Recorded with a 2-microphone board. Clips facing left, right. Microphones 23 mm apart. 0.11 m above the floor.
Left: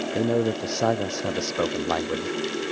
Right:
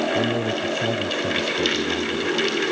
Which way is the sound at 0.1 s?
65° left (ahead or behind).